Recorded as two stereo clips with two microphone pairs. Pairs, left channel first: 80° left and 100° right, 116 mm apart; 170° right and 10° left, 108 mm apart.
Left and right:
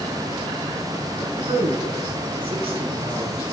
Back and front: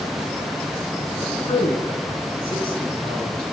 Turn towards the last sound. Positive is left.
turn(degrees=-140)